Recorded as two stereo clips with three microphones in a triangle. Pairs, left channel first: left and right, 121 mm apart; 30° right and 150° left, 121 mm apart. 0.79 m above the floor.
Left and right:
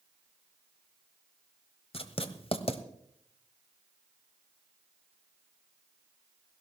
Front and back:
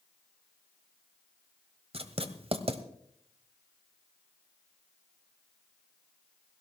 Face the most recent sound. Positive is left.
turn(degrees=120)